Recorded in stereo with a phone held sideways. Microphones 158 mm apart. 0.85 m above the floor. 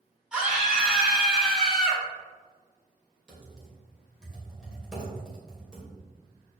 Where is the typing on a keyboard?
5° right (ahead or behind), 2.5 m.